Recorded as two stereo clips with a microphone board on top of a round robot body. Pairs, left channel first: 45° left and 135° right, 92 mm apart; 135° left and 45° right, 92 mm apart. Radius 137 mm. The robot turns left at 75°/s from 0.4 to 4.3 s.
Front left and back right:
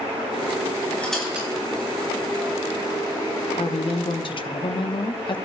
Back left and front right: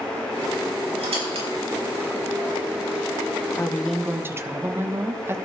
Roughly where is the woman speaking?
Left.